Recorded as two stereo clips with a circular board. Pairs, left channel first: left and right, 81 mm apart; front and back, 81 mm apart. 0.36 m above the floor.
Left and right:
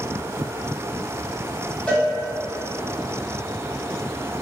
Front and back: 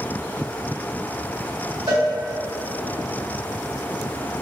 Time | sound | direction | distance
1.9 | a cowbell | 160° left | 0.9 m